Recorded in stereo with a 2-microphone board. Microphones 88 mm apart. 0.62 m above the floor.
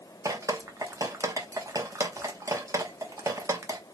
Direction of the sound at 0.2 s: 40° right (ahead or behind).